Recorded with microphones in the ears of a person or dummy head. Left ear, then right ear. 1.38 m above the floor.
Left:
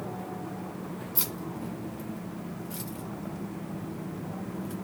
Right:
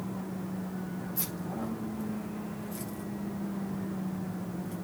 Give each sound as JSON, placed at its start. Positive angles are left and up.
{"t": 1.1, "sound": "keys jangling", "side_deg": 65, "distance_m": 10.0}